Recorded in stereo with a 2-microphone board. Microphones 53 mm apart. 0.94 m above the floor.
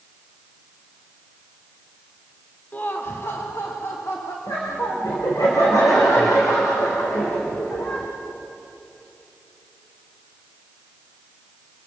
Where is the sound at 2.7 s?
30° left (ahead or behind), 1.1 m; by 4.4 s 60° left (ahead or behind), 2.5 m.